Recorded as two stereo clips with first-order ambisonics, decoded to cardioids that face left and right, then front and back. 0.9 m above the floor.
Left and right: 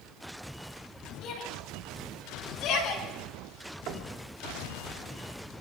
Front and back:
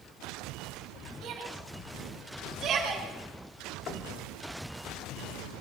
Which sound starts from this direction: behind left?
A shout, at 1.2 s.